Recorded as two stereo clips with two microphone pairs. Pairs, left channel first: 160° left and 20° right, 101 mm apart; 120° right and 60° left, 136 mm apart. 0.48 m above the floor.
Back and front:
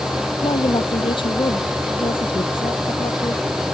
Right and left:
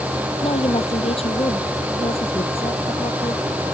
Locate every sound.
0.4 s a woman speaking: 165° right